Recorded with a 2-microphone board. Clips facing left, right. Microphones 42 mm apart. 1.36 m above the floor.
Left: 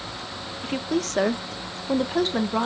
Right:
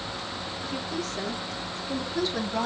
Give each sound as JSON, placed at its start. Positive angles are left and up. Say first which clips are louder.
{"t": 0.6, "sound": "a woman speaking", "louder": "left 8 dB", "side_deg": 50, "distance_m": 1.0}